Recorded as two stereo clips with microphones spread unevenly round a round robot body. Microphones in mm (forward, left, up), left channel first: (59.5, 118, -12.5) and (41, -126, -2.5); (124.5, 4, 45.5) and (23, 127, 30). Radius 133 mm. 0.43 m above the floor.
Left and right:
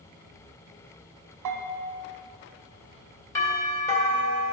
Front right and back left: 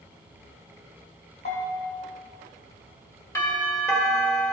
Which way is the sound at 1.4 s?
100° right.